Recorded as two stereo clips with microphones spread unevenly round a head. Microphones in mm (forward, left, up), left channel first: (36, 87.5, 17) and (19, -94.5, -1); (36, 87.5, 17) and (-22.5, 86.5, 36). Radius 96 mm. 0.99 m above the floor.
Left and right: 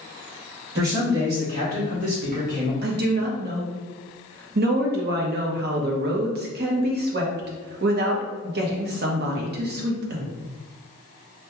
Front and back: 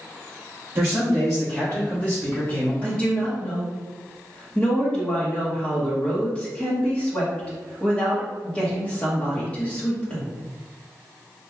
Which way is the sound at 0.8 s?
105° right.